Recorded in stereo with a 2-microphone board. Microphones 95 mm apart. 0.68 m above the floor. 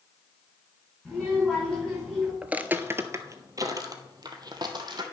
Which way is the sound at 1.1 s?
5° left (ahead or behind).